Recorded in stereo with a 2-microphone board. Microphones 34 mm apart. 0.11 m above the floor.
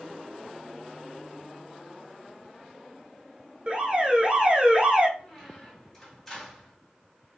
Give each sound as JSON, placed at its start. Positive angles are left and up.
{"t": 3.7, "sound": "an alarm", "side_deg": -30, "distance_m": 0.9}
{"t": 5.2, "sound": "a squeak", "side_deg": 10, "distance_m": 2.0}